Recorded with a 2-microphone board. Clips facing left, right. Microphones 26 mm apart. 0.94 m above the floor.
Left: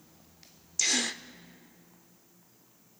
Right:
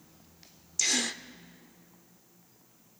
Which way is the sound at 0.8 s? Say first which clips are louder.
Even; 5° left (ahead or behind).